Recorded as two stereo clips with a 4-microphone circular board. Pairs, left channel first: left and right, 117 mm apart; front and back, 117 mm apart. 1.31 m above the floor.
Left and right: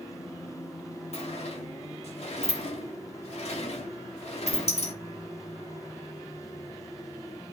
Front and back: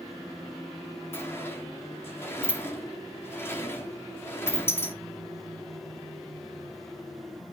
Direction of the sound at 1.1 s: 70° left.